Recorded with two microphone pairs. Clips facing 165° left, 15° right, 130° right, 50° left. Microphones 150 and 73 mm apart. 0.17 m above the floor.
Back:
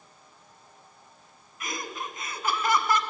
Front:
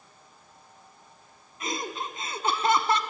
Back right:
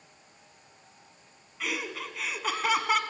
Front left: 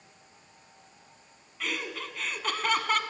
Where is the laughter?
50° right, 1.2 m.